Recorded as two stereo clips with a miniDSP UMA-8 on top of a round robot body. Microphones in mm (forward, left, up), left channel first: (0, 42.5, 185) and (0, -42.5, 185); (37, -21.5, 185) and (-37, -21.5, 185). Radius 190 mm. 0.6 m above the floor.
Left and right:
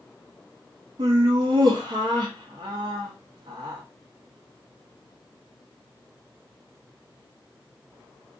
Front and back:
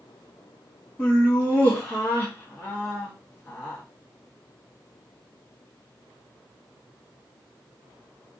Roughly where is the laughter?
Right.